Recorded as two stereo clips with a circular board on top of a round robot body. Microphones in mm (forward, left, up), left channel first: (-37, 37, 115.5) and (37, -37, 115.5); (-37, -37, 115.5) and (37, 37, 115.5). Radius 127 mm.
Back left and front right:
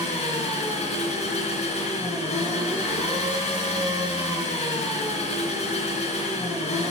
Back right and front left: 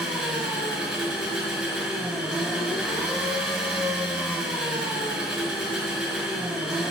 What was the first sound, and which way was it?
An engine running, 125° left.